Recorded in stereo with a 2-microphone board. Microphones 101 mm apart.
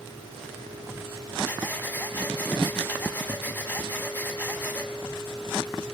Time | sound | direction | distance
1.4 | breathing | 20° left (ahead or behind) | 1.7 m